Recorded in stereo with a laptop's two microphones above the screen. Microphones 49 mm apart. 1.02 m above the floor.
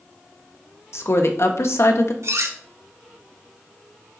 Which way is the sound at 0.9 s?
65° left (ahead or behind).